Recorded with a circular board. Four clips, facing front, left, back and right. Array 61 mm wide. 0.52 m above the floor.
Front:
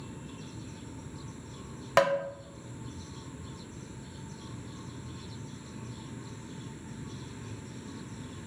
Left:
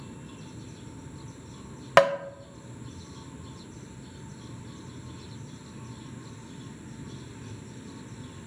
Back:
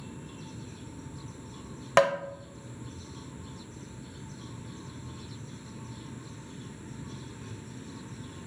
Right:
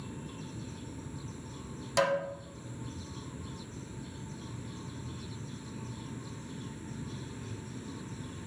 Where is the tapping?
100° left, 0.5 m.